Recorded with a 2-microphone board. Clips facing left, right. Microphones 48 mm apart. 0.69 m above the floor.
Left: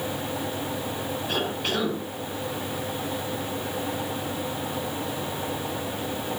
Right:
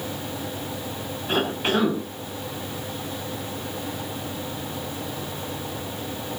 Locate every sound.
1.3 s a cough: 30° right (ahead or behind), 5.5 m